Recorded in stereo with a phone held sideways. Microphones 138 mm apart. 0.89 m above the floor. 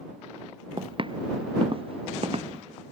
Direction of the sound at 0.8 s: 40° right (ahead or behind).